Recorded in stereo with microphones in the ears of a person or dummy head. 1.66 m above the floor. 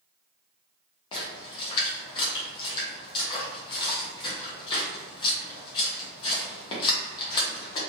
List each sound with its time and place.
1.1 s a splash: 30° left (ahead or behind), 1.0 m